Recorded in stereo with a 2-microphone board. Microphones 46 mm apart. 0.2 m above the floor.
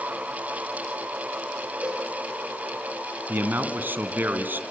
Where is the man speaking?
50° right (ahead or behind), 2 m.